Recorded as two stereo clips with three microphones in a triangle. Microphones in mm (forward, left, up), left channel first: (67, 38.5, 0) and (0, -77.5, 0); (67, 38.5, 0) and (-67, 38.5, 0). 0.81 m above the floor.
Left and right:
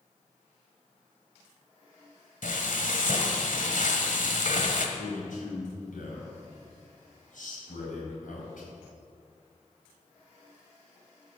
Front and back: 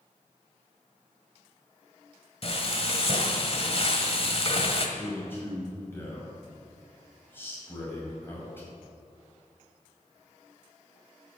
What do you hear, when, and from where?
2.4 s frying: 45° left, 1.4 m
5.0 s a man speaking: 75° left, 5.5 m